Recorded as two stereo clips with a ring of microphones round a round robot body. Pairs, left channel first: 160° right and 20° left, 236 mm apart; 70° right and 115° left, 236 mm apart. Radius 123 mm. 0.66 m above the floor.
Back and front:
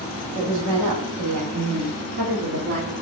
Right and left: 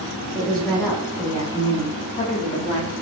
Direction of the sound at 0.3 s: 10° left.